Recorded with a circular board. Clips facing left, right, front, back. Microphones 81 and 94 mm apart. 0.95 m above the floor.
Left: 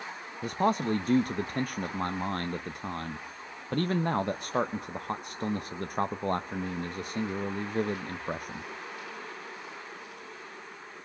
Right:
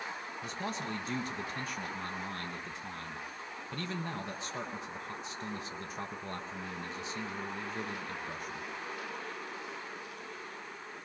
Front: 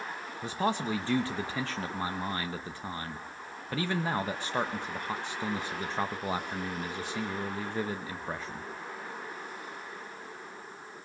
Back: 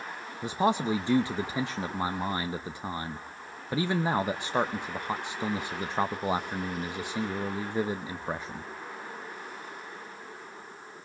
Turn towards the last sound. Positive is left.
turn(degrees=110)